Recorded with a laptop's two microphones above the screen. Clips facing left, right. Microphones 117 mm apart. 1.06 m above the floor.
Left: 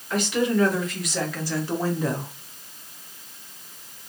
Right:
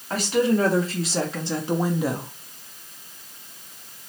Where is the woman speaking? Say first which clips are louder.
Right 2 dB; 35° right (ahead or behind), 1.7 m; by 2.3 s centre (ahead or behind), 0.6 m.